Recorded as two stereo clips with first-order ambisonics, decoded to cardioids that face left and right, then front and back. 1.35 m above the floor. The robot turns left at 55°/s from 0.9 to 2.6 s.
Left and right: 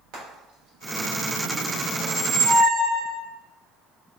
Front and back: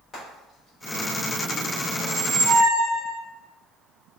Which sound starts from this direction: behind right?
A squeak, at 2.0 s.